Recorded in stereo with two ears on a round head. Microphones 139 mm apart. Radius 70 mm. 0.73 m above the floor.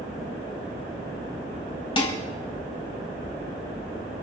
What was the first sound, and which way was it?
Dishes clattering, 35° left (ahead or behind).